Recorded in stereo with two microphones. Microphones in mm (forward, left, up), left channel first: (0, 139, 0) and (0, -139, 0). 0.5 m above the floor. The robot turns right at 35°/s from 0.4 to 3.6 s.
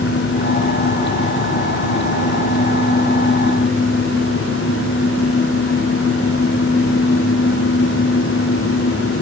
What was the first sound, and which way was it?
Only background noise.